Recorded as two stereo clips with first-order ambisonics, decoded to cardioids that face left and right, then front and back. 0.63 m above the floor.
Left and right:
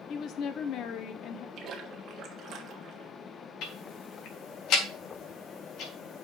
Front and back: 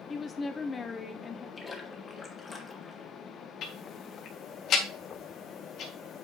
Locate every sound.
0.1 s a woman speaking: 65° left, 0.8 m
1.6 s a splash: 60° right, 1.4 m
3.6 s ticking: 50° left, 1.8 m